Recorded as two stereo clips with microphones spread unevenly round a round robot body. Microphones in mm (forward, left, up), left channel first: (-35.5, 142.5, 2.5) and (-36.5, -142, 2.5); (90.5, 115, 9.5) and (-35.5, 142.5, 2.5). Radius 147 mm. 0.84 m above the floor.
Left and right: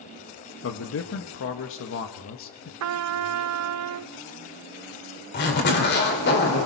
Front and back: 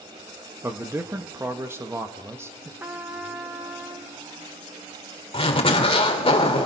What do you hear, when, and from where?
0.6 s a man speaking: 105° left, 1.3 m
2.8 s a trumpet: 115° right, 0.5 m
5.3 s a zipper: 35° left, 3 m